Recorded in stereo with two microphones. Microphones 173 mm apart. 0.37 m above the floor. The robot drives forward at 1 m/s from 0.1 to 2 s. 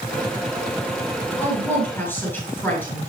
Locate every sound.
1.4 s a woman speaking: 10° left (ahead or behind), 8 m